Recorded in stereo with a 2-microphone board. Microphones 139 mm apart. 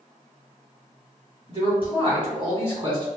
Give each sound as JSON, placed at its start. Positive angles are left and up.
{"t": 1.5, "sound": "a man speaking", "side_deg": -40, "distance_m": 1.7}